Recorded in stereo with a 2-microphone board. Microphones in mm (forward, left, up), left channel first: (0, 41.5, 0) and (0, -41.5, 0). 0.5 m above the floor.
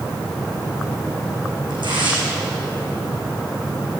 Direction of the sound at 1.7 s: 75° right (ahead or behind).